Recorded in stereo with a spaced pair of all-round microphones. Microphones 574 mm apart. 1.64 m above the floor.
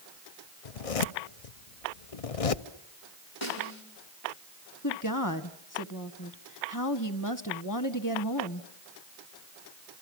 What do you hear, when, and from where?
0.7 s a zipper: 75° left (ahead or behind), 0.8 m
3.4 s a snare drum: 55° left (ahead or behind), 5.5 m
4.8 s a woman speaking: 35° left (ahead or behind), 1.3 m